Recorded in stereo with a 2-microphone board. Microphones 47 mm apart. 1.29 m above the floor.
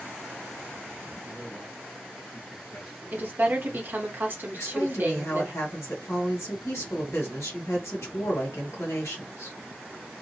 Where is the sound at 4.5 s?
75° left (ahead or behind), 1.3 m.